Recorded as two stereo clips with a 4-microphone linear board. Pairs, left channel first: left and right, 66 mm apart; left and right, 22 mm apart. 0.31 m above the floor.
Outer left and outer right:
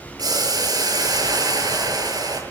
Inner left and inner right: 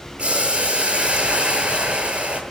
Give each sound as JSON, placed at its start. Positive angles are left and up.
{"t": 0.2, "sound": "boiling", "side_deg": -75, "distance_m": 7.5}